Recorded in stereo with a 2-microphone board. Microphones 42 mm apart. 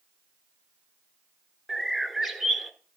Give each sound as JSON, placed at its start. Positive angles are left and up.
{"t": 1.7, "sound": "a bird", "side_deg": -5, "distance_m": 0.6}